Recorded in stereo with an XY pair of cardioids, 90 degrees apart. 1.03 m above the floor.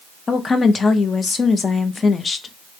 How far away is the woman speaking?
About 0.6 m.